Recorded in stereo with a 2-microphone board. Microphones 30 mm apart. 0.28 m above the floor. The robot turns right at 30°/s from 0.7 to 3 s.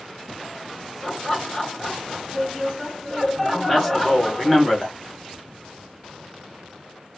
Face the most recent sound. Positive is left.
turn(degrees=10)  # may be behind; listen again after turning